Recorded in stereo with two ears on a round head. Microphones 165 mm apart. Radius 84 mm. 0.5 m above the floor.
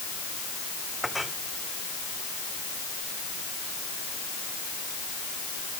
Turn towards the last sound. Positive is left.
turn(degrees=0)  # may be behind; listen again after turning